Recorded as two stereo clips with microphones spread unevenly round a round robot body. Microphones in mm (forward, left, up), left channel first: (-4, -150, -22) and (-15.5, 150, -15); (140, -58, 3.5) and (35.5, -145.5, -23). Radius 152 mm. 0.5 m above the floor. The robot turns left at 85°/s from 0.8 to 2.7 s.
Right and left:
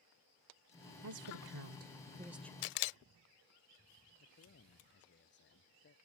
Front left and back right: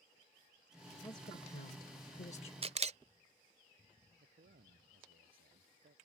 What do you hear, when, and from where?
1.0 s a woman speaking: 120° left; by 2.5 s 5° right
2.6 s a camera shutter: 90° right; by 3.0 s 95° right
4.2 s a man speaking: 140° right